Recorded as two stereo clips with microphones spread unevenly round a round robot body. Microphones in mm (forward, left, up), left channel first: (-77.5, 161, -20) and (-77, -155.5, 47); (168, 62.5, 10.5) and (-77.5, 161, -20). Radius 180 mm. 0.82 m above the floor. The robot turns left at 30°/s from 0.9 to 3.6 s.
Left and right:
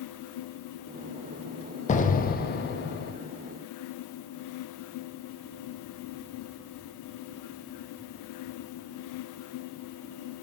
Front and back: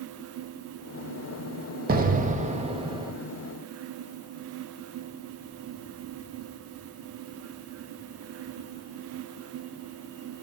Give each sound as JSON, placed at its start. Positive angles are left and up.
{"t": 1.9, "sound": "an explosion", "azimuth_deg": 130, "distance_m": 1.0}